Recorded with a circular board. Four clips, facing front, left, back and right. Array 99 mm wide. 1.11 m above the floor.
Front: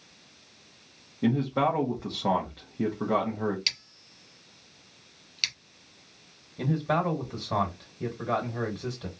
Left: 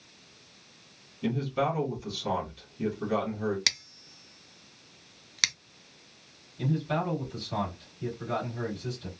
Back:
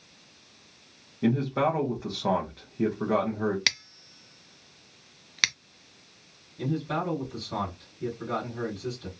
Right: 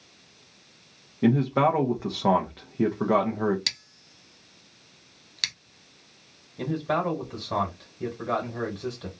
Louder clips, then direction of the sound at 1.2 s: Right 7 dB, even; 95° right.